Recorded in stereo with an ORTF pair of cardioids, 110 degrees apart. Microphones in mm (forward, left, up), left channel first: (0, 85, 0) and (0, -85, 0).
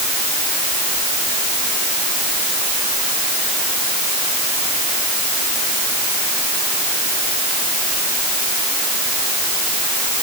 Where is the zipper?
No zipper in this recording.